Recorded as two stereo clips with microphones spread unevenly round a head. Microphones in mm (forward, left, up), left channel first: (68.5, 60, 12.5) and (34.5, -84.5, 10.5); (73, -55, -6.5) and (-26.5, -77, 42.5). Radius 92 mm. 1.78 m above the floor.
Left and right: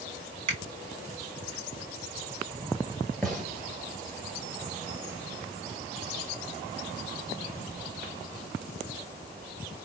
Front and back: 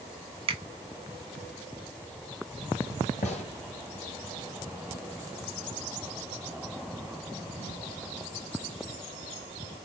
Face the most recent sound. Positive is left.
turn(degrees=-10)